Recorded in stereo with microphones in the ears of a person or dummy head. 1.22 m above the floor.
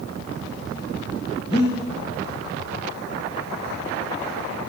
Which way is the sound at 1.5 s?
30° left (ahead or behind).